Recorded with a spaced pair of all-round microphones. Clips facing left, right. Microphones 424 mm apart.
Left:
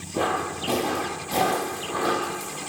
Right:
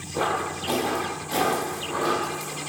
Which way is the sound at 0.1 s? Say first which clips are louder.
Left 1 dB; 45° left (ahead or behind).